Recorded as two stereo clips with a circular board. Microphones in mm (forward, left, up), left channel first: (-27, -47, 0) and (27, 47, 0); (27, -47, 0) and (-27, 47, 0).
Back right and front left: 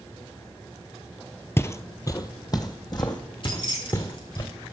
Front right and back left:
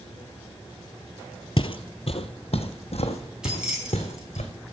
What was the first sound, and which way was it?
Footsteps, 60° right.